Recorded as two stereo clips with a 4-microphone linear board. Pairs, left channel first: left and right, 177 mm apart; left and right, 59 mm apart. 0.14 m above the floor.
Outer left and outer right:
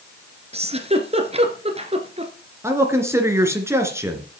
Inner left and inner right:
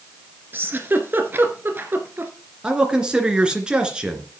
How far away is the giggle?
About 1.8 m.